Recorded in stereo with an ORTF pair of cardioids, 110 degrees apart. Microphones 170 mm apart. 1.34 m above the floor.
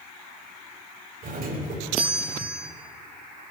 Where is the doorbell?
65° right, 6 m.